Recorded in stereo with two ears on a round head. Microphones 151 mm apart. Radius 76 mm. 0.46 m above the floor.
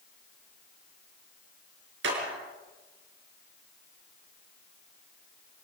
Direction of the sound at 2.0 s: 80° right.